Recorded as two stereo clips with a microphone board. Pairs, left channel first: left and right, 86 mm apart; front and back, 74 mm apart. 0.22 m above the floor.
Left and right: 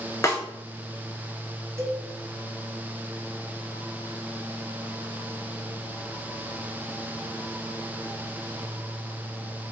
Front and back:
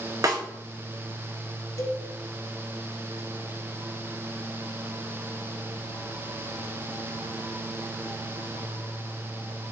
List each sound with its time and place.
0.2 s a snare drum: 145° left, 0.9 m
1.8 s a cowbell: 35° right, 0.8 m